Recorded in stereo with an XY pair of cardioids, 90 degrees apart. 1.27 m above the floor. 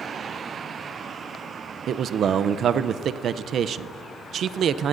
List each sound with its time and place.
1.9 s a man speaking: 70° right, 0.5 m